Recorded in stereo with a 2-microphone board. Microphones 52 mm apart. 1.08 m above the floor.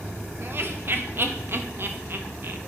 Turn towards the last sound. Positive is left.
turn(degrees=-50)  # may be behind; listen again after turning